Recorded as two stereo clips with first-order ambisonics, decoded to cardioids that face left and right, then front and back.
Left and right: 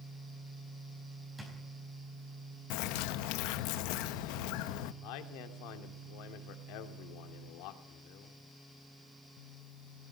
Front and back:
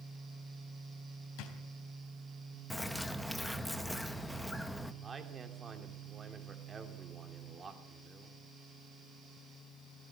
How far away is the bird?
About 0.9 m.